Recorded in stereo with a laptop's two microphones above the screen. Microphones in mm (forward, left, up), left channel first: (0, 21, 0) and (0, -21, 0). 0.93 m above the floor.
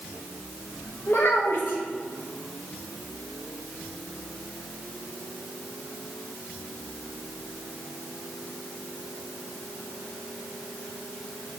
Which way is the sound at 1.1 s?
60° left (ahead or behind).